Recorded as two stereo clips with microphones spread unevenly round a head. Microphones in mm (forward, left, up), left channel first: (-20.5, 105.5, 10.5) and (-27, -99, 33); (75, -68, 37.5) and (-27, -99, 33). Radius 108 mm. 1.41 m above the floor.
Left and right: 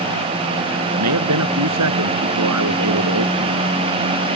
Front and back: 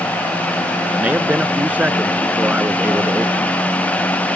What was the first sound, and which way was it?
A man speaking, 85° right.